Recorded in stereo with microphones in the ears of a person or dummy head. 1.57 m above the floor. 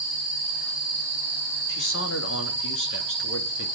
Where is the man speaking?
65° left (ahead or behind), 3 m.